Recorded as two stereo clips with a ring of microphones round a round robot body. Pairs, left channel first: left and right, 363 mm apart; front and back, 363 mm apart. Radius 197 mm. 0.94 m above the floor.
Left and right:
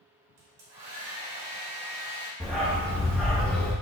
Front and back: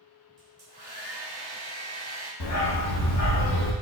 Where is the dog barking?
Straight ahead, 0.6 m.